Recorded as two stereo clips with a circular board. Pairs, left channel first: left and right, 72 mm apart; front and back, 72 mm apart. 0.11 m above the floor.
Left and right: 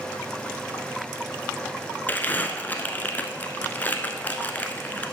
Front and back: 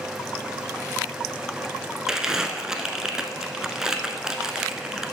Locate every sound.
2.1 s crumpling: 110° left, 0.7 m